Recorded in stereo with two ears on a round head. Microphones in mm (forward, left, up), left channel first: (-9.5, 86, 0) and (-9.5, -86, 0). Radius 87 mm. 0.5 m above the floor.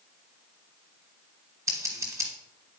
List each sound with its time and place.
1.7 s scissors: 15° right (ahead or behind), 1.6 m